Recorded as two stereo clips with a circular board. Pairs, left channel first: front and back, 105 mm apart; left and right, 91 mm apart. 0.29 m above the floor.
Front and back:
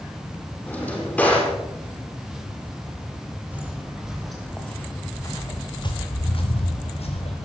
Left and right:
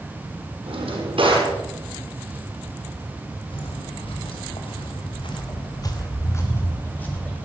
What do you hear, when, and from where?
0.7 s a drawer: 80° right, 5.5 m
3.5 s footsteps: 105° left, 4 m; by 7.5 s 10° left, 4.5 m